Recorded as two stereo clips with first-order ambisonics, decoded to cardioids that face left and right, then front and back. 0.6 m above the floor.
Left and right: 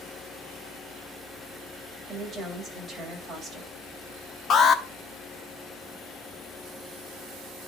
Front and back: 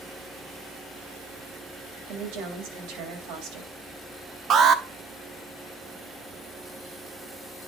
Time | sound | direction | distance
2.1 | a woman speaking | straight behind | 3 m
4.5 | an alarm | 135° left | 0.7 m